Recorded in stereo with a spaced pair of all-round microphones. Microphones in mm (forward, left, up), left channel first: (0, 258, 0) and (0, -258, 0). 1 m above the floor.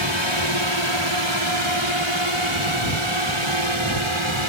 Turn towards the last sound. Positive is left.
turn(degrees=-65)  # may be behind; listen again after turning